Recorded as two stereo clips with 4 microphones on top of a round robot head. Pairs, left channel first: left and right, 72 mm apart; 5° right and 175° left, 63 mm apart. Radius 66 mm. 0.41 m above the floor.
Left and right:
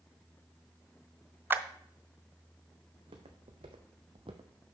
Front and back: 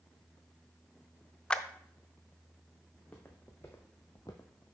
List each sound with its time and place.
1.5 s a clap: 65° right, 0.6 m
2.9 s footsteps: 80° right, 1.3 m; by 4.8 s 40° right, 0.5 m